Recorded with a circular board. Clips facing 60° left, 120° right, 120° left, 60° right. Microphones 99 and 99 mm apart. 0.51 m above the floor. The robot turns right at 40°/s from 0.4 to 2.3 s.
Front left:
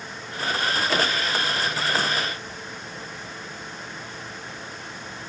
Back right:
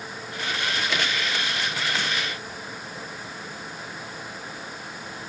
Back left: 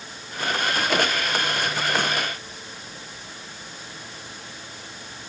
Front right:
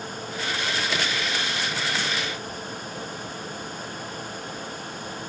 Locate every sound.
Only background noise.